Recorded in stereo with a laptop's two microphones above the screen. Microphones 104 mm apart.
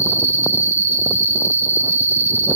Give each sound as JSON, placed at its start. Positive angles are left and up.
{"t": 0.0, "sound": "an insect", "side_deg": -25, "distance_m": 2.0}